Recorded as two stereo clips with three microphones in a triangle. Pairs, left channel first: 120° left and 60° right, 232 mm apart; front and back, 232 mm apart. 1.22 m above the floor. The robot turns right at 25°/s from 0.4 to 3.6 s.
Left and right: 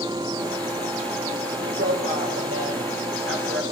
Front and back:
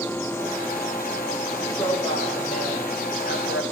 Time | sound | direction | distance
1.6 | a woman speaking | 75° right | 5.5 m